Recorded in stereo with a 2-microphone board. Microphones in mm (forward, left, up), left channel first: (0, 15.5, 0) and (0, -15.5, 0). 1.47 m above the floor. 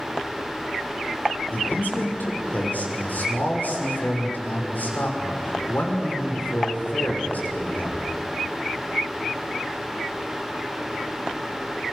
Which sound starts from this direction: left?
A man speaking, at 1.5 s.